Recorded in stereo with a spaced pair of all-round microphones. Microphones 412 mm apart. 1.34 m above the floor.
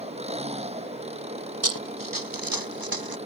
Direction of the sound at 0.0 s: 15° right (ahead or behind).